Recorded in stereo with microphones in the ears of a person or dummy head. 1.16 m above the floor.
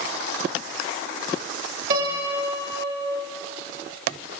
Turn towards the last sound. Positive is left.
turn(degrees=-50)  # may be behind; listen again after turning